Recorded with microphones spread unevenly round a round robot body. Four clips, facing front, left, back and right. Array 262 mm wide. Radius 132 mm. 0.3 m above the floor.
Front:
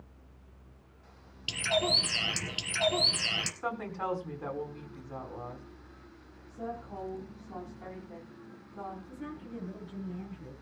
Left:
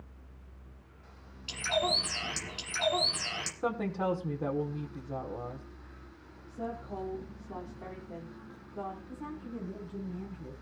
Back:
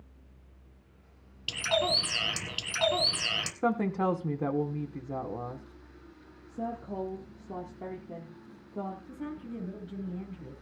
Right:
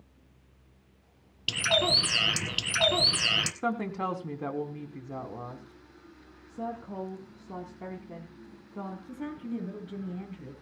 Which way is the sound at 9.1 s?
110° right.